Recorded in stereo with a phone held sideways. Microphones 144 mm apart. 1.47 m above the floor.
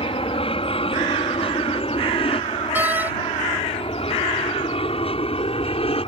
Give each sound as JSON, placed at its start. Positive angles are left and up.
{"t": 0.0, "sound": "an aircraft", "side_deg": 40}
{"t": 2.8, "sound": "a door slam", "side_deg": -15}